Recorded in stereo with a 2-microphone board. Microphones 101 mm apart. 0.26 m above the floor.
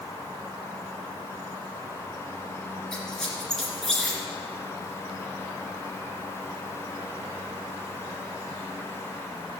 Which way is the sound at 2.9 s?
5° left (ahead or behind).